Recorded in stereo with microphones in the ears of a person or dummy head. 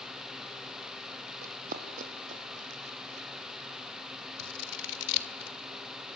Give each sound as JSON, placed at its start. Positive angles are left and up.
{"t": 1.4, "sound": "running footsteps", "side_deg": -50, "distance_m": 3.0}
{"t": 4.4, "sound": "scissors", "side_deg": 65, "distance_m": 1.8}